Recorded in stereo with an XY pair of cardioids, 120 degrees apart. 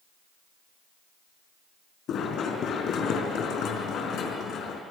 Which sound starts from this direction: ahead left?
Running footsteps, at 2.1 s.